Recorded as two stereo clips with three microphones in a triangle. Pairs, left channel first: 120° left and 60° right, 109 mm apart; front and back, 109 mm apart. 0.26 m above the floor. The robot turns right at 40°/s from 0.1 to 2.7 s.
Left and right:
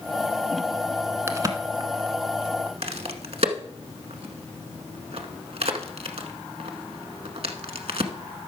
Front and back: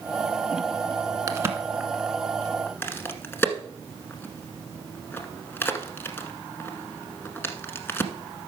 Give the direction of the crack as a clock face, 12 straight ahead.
4 o'clock.